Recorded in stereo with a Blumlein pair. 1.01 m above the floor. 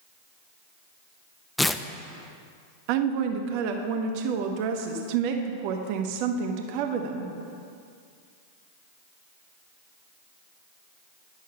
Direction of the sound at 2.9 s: 45° right.